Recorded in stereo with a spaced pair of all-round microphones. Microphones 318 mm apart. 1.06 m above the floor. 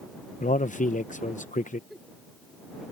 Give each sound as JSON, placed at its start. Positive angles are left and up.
{"t": 0.4, "sound": "a man speaking", "side_deg": 25}
{"t": 1.9, "sound": "a giggle", "side_deg": 0}